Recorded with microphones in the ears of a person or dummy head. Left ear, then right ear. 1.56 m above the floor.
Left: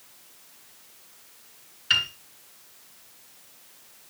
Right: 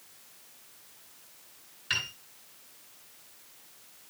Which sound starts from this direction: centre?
A piano, at 1.9 s.